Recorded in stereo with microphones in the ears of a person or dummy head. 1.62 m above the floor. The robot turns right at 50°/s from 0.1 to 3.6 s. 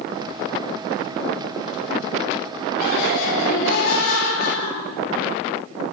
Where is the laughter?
60° left, 3 m; by 5.3 s 105° left, 3 m.